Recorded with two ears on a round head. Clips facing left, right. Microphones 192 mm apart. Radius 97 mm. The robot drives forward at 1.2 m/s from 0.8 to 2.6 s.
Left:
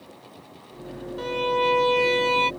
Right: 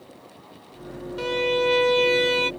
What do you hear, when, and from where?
1.2 s a violin: 30° right (ahead or behind); by 2.5 s 15° right (ahead or behind)